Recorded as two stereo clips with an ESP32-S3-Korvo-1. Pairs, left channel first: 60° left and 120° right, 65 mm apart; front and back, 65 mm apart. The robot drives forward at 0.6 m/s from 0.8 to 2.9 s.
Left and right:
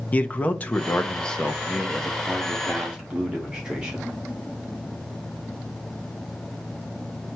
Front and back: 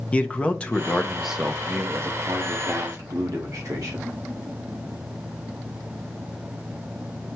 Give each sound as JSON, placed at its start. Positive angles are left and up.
{"t": 0.1, "sound": "a man speaking", "azimuth_deg": 45, "distance_m": 0.7}